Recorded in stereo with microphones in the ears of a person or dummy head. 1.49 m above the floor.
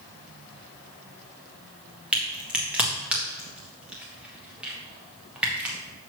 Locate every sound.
2.1 s a crack: 5° right (ahead or behind), 1.5 m